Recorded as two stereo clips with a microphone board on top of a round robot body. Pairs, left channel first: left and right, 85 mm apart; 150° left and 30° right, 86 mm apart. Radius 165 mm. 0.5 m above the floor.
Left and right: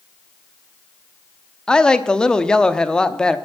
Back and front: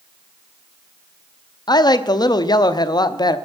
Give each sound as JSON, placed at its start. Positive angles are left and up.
{"t": 1.7, "sound": "a woman speaking", "azimuth_deg": 170, "distance_m": 1.0}